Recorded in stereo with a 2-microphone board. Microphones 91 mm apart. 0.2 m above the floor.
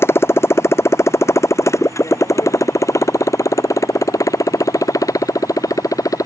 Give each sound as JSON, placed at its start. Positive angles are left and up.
{"t": 0.0, "sound": "a motorcycle", "side_deg": 25}